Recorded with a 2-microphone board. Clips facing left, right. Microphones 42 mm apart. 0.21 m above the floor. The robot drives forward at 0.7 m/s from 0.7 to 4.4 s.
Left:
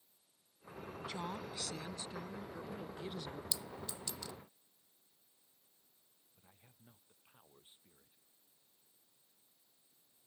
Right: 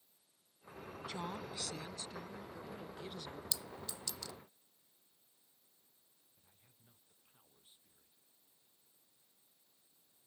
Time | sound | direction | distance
1.1 | a woman speaking | 20° left (ahead or behind) | ?
3.5 | a clink | 15° left (ahead or behind) | ?
6.3 | a man speaking | 35° left (ahead or behind) | ?